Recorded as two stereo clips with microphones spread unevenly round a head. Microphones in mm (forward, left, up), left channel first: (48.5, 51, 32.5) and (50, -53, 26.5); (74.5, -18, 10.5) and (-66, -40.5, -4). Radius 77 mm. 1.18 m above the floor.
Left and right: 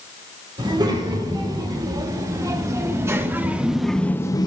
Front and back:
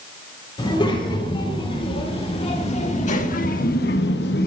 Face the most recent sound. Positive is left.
turn(degrees=45)